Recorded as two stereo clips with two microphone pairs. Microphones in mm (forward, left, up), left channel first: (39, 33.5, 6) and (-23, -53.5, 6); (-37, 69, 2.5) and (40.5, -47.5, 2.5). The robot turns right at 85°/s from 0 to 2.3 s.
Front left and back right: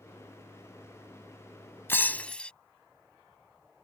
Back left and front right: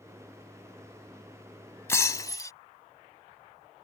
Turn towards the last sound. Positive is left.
turn(degrees=120)